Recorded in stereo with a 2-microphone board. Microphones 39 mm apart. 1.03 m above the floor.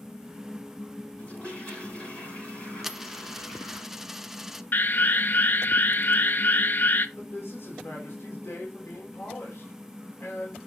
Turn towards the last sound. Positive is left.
turn(degrees=80)